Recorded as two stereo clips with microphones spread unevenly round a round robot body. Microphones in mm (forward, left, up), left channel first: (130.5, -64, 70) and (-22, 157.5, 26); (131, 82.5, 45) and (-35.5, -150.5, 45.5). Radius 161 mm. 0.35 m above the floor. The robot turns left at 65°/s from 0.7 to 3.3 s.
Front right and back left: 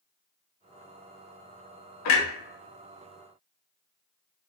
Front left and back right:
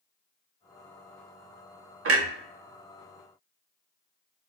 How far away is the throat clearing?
I don't hear throat clearing.